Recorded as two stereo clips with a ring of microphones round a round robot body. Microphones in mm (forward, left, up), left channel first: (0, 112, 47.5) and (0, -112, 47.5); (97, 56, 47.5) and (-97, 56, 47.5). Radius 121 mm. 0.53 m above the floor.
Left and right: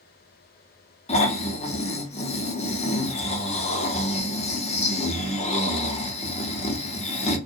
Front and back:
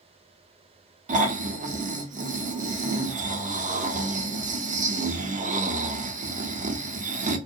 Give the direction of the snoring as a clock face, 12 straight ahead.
7 o'clock.